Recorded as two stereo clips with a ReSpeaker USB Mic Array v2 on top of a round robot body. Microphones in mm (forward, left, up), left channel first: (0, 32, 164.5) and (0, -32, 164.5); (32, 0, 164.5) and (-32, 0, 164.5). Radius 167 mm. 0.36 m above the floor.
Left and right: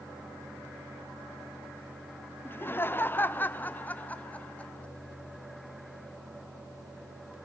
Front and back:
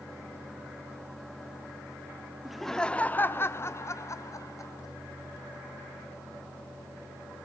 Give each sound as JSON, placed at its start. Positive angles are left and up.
{"t": 2.5, "sound": "laughter", "azimuth_deg": 100, "distance_m": 1.1}